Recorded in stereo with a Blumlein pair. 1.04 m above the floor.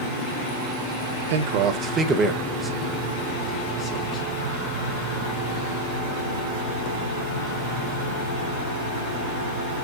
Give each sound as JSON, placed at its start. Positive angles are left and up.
{"t": 1.3, "sound": "a man speaking", "azimuth_deg": -60, "distance_m": 0.6}